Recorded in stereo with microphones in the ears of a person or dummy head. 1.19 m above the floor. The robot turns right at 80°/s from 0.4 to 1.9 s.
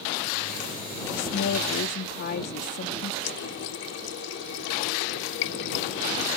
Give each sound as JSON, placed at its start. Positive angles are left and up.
{"t": 1.1, "sound": "a woman speaking", "azimuth_deg": 65}
{"t": 3.2, "sound": "a running tap", "side_deg": 65}